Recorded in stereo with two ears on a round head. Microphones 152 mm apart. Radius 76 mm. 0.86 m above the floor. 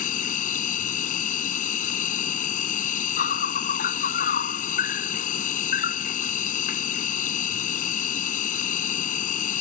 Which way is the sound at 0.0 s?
50° left (ahead or behind).